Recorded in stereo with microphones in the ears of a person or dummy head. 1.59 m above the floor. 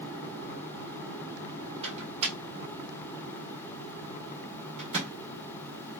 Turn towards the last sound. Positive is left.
turn(degrees=-30)  # may be behind; listen again after turning